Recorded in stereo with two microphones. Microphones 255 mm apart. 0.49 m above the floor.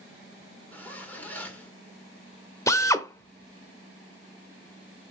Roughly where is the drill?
Centre.